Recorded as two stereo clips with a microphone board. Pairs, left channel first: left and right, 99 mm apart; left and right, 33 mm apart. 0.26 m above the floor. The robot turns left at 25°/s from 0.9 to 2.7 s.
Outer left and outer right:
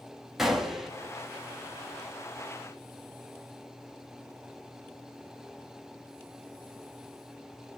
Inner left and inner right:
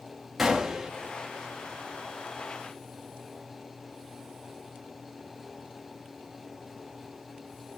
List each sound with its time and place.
0.4 s a gunshot: 5° right (ahead or behind), 0.9 m